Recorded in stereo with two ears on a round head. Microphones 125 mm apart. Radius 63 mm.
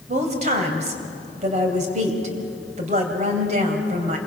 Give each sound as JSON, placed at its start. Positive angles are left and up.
{"t": 0.1, "sound": "a woman speaking", "side_deg": -55, "distance_m": 3.0}